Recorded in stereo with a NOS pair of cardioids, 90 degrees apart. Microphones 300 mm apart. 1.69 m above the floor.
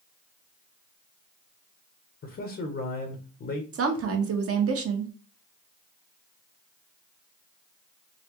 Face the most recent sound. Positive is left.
turn(degrees=-50)